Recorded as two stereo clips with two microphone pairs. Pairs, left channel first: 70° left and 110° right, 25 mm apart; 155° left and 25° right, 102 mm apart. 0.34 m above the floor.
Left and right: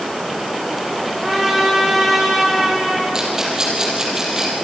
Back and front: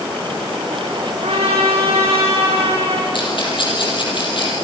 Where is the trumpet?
25° right, 6 m.